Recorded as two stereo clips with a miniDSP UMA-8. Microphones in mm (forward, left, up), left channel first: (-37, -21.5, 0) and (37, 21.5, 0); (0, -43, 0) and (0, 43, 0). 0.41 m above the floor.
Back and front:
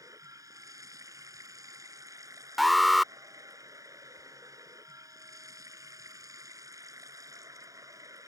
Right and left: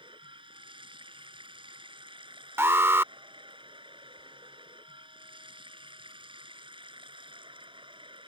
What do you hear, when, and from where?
0.0 s running water: 80° left
2.6 s an alarm: 120° left